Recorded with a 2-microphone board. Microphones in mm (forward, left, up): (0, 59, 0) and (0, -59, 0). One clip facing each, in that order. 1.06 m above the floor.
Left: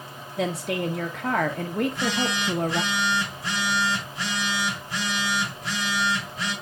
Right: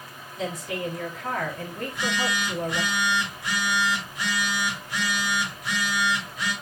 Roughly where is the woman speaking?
Left.